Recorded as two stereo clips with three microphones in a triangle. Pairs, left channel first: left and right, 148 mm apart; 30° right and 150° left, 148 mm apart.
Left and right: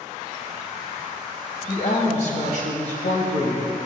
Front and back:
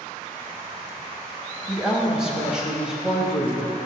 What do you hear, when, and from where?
1.7 s a woman speaking: 65° left, 2 m